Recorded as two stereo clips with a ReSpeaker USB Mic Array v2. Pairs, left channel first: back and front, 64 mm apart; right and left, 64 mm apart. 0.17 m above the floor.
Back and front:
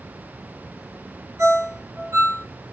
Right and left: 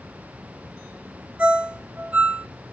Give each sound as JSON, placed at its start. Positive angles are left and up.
{"t": 1.4, "sound": "a ringtone", "azimuth_deg": 20, "distance_m": 1.3}